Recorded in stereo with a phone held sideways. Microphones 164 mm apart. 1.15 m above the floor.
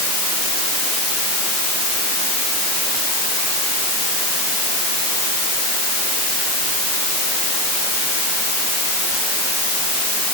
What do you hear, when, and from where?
Only background noise.